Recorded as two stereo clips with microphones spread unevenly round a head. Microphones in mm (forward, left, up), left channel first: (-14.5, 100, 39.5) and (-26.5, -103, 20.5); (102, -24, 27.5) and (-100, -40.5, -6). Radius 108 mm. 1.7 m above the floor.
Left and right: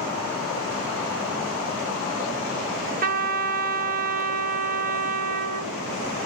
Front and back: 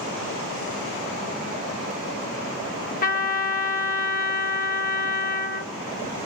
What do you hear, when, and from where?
3.0 s a trumpet: 40° right, 2.5 m